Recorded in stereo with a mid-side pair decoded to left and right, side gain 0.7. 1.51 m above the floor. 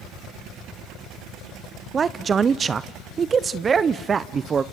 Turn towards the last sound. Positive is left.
turn(degrees=-25)